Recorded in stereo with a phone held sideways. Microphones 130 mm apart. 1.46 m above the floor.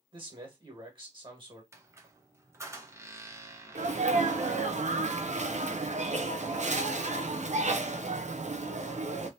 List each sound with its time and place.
0.1 s a man speaking: 40° right (ahead or behind), 1.6 m
1.7 s a squeak: 20° right (ahead or behind), 0.8 m
3.8 s a sneeze: 60° right (ahead or behind), 0.6 m